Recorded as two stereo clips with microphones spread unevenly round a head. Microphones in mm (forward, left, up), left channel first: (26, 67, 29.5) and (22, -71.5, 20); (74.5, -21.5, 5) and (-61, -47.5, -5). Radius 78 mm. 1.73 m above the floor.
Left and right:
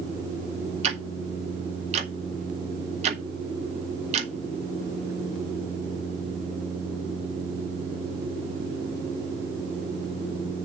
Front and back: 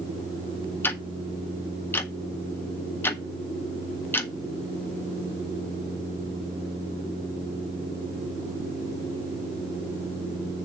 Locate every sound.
0.8 s ticking: 60° right, 1.5 m